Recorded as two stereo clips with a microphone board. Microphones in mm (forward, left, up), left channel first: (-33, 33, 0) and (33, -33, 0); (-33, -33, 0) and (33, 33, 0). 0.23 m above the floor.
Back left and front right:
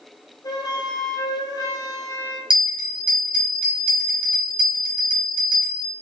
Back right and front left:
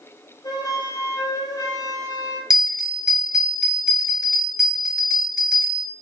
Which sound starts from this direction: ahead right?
A bell, at 2.5 s.